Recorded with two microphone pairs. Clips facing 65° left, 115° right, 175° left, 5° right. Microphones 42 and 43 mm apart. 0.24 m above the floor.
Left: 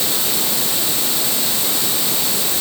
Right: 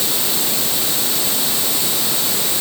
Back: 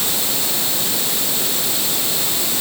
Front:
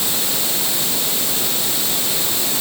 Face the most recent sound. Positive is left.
No sound to turn to.